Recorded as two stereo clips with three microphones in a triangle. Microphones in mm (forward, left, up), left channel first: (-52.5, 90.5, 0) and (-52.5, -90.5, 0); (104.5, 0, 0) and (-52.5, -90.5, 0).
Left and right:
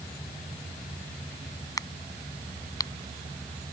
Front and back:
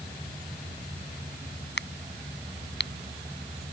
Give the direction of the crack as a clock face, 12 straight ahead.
11 o'clock.